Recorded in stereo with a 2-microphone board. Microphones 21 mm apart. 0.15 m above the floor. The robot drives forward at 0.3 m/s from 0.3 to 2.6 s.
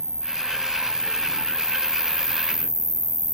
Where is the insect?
30° left (ahead or behind); by 3.4 s 65° left (ahead or behind).